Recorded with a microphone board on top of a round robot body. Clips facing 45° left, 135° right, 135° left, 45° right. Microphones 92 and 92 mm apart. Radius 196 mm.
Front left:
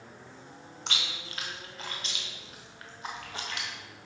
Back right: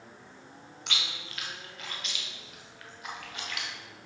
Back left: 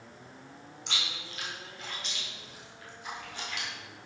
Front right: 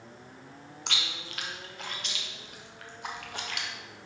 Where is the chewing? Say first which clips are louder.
Front left 1 dB, front right 1 dB; 15° right, 0.8 m.